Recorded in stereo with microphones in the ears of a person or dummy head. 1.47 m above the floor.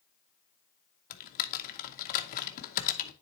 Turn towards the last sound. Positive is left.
turn(degrees=45)  # may be behind; listen again after turning